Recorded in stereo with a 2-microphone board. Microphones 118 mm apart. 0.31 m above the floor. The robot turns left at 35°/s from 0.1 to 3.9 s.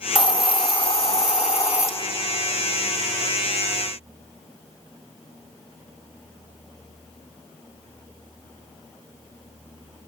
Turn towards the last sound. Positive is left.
turn(degrees=-25)